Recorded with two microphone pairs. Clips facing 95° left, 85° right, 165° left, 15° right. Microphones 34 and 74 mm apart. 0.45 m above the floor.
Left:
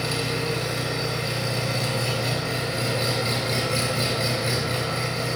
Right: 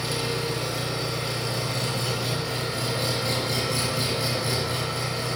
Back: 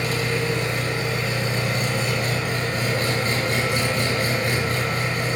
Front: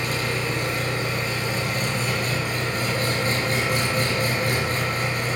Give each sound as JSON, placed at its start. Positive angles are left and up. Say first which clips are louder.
{"t": 0.0, "sound": "an engine running", "louder": "left 2 dB, back 2 dB", "azimuth_deg": 125, "distance_m": 5.0}